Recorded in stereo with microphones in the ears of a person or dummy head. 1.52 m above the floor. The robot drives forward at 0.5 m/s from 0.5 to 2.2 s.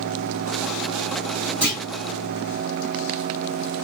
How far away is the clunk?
About 1.5 m.